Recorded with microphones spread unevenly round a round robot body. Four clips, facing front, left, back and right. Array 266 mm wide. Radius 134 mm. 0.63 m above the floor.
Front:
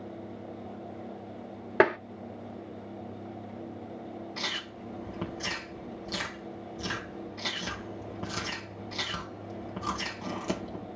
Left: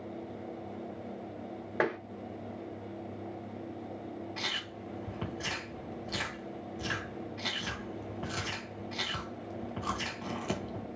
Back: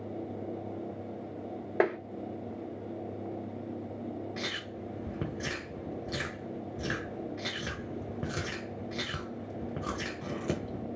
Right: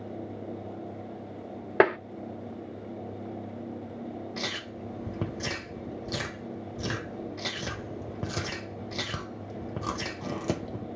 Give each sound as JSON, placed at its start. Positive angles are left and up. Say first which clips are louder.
{"t": 1.8, "sound": "tapping", "louder": "right 9 dB, front 4 dB", "azimuth_deg": -50, "distance_m": 1.0}
{"t": 4.4, "sound": "chewing", "louder": "right 4 dB, back 1 dB", "azimuth_deg": -120, "distance_m": 1.6}